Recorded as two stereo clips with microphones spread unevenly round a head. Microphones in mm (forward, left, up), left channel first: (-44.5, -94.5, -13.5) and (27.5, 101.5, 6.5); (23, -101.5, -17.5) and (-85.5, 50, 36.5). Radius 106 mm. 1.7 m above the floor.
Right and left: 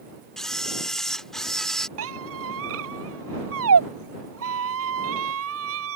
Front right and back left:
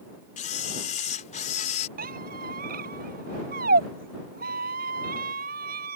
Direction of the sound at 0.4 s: 10° right.